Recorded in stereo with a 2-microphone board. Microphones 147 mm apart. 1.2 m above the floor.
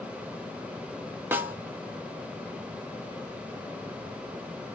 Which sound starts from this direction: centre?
A snare drum, at 1.3 s.